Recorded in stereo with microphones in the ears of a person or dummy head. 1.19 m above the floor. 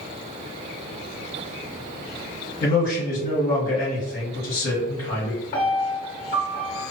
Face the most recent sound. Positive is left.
turn(degrees=50)  # may be behind; listen again after turning